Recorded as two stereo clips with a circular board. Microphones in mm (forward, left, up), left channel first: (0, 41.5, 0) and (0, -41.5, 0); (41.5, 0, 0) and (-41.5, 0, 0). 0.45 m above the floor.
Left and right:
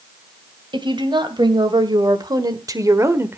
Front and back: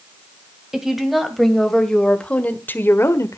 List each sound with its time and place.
0.7 s a woman speaking: 95° right, 2.5 m; by 3.4 s 35° right, 1.4 m